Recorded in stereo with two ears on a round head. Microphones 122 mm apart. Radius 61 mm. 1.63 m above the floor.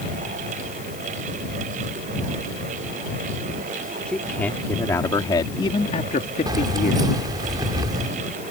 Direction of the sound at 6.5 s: 30° right (ahead or behind).